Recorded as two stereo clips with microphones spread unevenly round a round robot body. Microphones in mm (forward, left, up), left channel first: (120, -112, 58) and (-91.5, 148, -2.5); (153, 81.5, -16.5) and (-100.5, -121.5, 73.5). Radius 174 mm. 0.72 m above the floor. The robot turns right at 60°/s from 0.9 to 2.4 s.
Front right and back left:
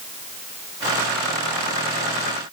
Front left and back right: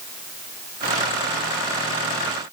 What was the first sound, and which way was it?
Only background noise.